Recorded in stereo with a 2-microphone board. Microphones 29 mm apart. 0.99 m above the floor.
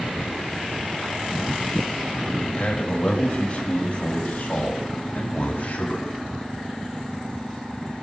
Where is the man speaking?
45° left (ahead or behind), 4.5 m; by 6.1 s 60° left (ahead or behind), 6 m.